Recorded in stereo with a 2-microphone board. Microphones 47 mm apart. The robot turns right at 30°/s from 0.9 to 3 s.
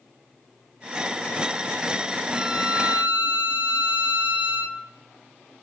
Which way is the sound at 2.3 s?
10° right (ahead or behind).